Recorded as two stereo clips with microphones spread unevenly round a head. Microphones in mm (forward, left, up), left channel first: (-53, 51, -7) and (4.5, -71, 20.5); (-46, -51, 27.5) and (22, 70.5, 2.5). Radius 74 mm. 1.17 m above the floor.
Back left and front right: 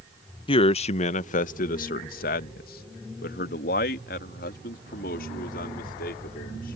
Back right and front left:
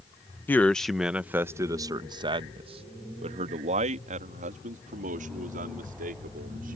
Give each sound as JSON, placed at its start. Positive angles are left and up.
{"t": 0.5, "sound": "a man speaking", "azimuth_deg": 160}